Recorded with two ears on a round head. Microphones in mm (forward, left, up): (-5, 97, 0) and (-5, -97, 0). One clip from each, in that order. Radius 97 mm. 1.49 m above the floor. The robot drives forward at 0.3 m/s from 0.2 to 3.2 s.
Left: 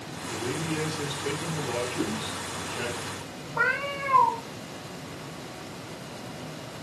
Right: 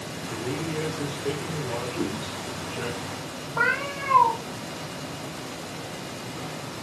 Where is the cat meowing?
Centre (ahead or behind), 1.5 m.